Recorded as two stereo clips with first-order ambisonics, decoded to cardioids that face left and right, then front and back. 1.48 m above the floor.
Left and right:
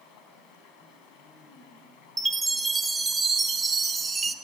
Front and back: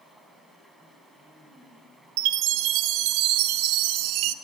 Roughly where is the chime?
Behind.